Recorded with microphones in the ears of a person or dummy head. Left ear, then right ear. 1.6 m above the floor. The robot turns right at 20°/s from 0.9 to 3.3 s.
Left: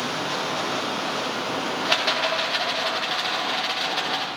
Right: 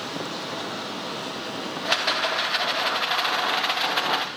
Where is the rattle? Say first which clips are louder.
Even; centre (ahead or behind), 0.5 m; by 4.3 s 30° right (ahead or behind), 0.5 m.